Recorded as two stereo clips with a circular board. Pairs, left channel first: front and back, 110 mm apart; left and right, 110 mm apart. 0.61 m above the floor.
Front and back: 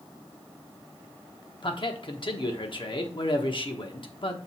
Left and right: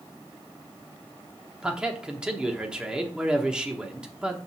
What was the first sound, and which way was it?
A man speaking, 10° right.